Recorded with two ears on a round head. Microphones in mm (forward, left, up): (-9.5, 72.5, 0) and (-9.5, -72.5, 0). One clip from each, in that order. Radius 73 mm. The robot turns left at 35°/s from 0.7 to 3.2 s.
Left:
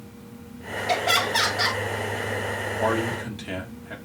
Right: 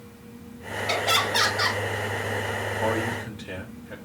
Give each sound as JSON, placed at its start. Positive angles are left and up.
{"t": 0.9, "sound": "laughter", "azimuth_deg": -160, "distance_m": 2.0}
{"t": 2.8, "sound": "a man speaking", "side_deg": 50, "distance_m": 2.0}